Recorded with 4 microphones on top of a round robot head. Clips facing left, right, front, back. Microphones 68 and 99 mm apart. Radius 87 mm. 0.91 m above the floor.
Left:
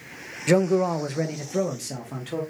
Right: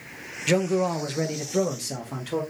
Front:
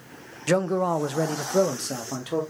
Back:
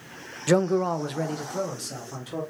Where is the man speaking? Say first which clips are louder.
Left 3 dB, back 1 dB; 105° left, 0.5 m; by 2.4 s 5° right, 1.2 m.